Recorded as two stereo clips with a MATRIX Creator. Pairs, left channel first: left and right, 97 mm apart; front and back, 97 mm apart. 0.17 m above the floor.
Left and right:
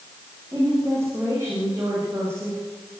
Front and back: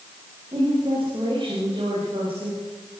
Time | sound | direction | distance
0.5 | a woman speaking | 155° right | 8 m